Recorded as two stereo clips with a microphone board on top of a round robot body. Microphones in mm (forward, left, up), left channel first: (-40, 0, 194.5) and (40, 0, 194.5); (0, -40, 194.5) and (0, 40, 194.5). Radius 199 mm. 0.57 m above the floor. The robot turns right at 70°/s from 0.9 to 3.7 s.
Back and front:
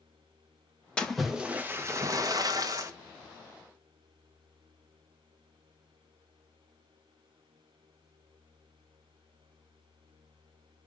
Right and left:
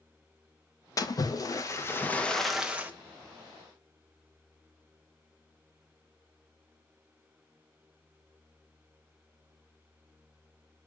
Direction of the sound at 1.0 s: 105° right.